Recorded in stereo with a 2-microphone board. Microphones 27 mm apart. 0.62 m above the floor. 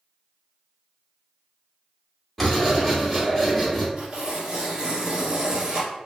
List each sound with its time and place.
2.4 s writing: 10° left (ahead or behind), 1.5 m
4.0 s tearing paper: 25° right (ahead or behind), 1.5 m